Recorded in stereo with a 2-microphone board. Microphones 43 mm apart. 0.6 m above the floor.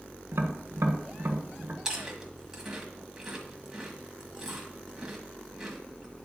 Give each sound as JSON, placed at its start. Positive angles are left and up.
{"t": 0.3, "sound": "tapping", "side_deg": -70, "distance_m": 1.4}
{"t": 1.9, "sound": "chewing", "side_deg": -10, "distance_m": 1.5}